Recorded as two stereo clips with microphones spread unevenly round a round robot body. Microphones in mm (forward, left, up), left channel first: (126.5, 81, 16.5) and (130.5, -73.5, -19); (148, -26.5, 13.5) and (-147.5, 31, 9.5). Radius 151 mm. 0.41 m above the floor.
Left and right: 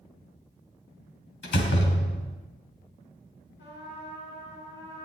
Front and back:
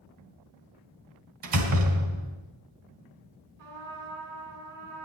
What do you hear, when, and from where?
1.4 s a door slam: 135° left, 2.0 m
3.6 s a trumpet: 150° left, 4 m